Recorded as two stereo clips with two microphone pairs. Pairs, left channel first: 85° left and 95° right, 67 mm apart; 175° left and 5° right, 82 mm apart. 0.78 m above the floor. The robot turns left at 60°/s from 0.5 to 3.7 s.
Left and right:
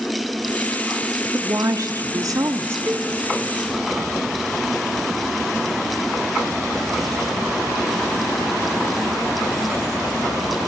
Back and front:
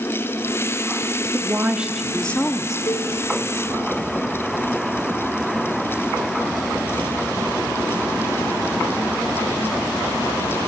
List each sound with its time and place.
1.3 s a woman speaking: 55° right, 1.3 m; by 2.8 s 140° right, 1.3 m
2.9 s a cowbell: 155° right, 0.8 m; by 3.1 s 165° right, 0.8 m